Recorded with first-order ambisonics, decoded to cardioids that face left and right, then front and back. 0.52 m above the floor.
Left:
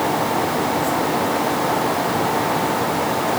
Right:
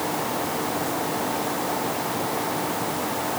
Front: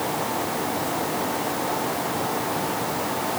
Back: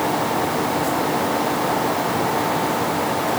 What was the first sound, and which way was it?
Only background noise.